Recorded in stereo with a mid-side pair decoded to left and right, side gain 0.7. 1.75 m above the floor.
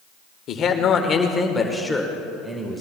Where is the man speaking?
45° left, 1.6 m; by 2.8 s 15° right, 1.9 m.